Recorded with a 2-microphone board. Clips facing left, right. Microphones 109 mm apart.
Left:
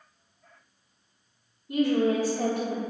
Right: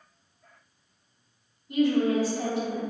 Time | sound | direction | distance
1.7 | a woman speaking | 50° left (ahead or behind) | 0.9 m